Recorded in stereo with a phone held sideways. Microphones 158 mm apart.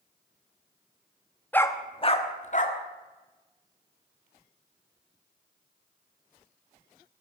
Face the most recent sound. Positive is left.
turn(degrees=55)  # may be behind; listen again after turning